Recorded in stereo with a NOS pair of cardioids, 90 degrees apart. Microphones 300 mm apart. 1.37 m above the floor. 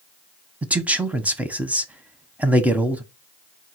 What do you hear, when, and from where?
0.6 s a man speaking: 5° right, 0.7 m